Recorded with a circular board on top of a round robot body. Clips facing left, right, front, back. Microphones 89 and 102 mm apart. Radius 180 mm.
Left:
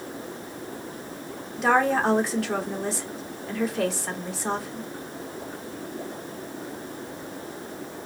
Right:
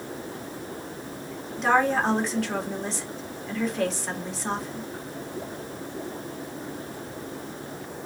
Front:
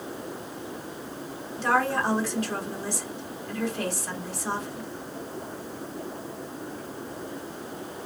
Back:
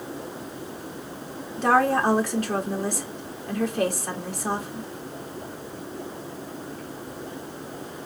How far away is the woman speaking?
About 1.8 m.